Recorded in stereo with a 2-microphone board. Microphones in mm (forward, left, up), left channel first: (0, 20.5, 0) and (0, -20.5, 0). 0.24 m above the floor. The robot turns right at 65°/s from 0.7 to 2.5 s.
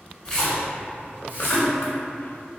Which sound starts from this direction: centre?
A splash, at 0.2 s.